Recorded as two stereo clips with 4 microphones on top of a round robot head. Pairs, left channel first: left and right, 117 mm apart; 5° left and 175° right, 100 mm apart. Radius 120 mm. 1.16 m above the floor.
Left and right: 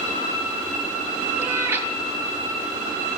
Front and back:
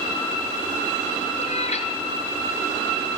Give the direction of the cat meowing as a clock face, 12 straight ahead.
1 o'clock.